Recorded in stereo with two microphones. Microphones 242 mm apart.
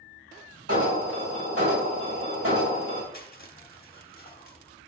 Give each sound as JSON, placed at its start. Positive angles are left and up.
{"t": 0.7, "sound": "an alarm", "side_deg": -65, "distance_m": 2.5}
{"t": 3.1, "sound": "crushing", "side_deg": 40, "distance_m": 1.4}